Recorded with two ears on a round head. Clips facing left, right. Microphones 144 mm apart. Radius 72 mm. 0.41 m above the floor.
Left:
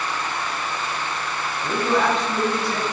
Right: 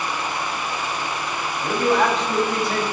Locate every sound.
1.6 s a man speaking: 60° right (ahead or behind), 3 m